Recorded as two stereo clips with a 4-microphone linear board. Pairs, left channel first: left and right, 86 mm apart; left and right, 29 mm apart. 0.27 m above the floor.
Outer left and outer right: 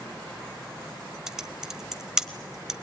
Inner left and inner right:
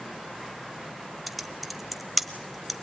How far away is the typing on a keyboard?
About 1.0 m.